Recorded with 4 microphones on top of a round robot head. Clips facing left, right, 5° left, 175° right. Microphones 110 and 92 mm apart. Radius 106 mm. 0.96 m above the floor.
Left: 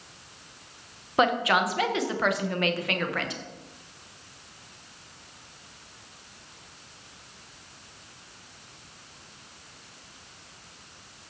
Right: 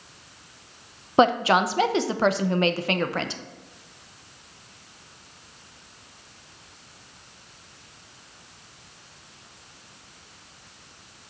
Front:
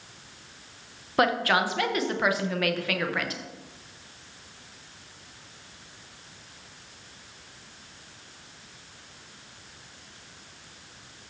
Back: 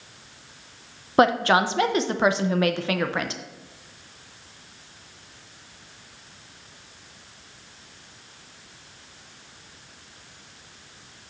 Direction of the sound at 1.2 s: 130° right.